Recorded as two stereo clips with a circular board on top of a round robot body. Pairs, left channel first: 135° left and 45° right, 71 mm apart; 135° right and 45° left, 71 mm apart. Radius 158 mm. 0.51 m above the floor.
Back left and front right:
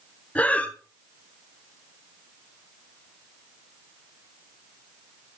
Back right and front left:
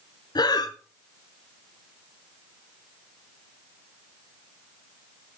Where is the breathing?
155° right, 1.0 m.